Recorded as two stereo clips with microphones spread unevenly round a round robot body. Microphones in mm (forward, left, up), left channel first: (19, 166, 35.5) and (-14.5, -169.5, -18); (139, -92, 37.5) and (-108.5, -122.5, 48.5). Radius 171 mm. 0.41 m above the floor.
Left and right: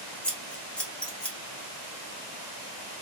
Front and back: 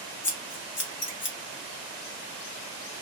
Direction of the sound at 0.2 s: 10° right.